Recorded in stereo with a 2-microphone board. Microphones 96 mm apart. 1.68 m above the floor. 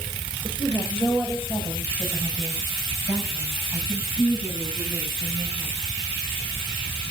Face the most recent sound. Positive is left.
turn(degrees=-25)  # may be behind; listen again after turning